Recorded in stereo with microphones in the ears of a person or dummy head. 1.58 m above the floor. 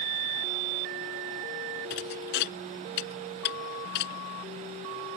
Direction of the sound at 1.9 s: 60° left (ahead or behind).